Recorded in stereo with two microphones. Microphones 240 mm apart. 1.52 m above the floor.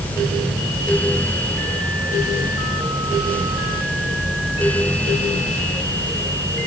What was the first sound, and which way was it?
Only background noise.